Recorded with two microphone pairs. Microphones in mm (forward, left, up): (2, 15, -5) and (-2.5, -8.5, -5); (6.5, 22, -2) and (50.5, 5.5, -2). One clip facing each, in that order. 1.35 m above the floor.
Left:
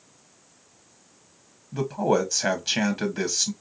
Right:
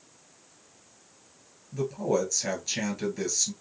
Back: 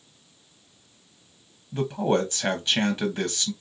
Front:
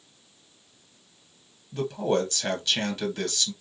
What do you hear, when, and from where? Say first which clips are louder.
1.7 s a man speaking: left 4 dB, back 2 dB; 85° left, 0.7 m